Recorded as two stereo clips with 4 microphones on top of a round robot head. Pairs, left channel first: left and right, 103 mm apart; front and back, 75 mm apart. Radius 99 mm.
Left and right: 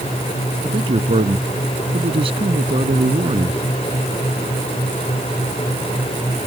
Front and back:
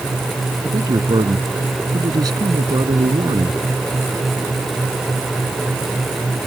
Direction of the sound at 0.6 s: 130° right.